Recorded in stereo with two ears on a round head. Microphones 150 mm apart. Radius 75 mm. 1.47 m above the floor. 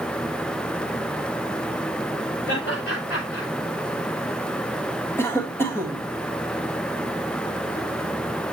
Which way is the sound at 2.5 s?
60° left (ahead or behind).